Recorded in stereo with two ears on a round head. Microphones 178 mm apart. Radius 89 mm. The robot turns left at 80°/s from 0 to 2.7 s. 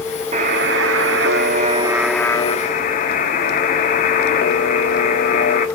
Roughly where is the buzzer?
Ahead right.